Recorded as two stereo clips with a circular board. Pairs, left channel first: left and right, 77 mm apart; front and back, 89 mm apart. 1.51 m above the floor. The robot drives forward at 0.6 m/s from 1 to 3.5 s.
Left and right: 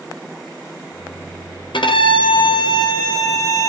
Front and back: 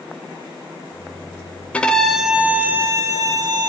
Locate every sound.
1.7 s a violin: 75° left, 0.9 m; by 3.7 s 135° left, 1.2 m